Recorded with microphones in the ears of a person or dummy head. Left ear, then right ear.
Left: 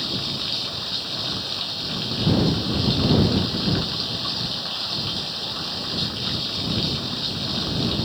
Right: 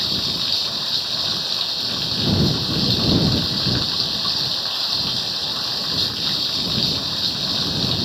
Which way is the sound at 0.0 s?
15° right (ahead or behind).